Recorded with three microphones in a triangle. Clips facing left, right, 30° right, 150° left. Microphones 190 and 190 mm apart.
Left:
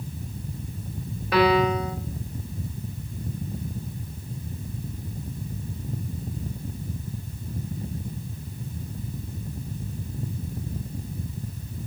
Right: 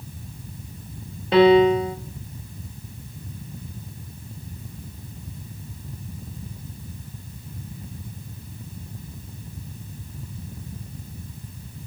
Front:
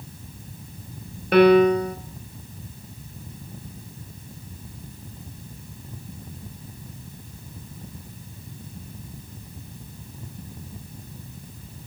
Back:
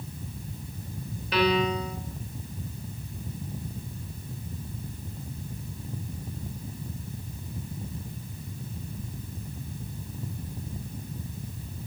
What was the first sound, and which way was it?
A piano, 30° right.